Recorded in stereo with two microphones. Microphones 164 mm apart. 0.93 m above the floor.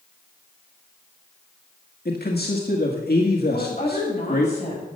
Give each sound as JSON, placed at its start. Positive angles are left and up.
{"t": 2.0, "sound": "a man speaking", "side_deg": 70, "distance_m": 1.7}
{"t": 3.5, "sound": "a woman speaking", "side_deg": 45, "distance_m": 6.5}